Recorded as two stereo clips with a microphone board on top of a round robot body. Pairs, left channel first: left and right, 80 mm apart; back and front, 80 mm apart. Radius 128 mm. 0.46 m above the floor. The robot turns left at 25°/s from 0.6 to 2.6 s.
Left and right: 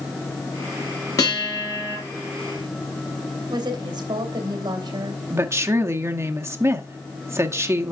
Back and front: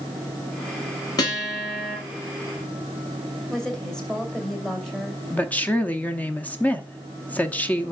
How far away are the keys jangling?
No keys jangling in this recording.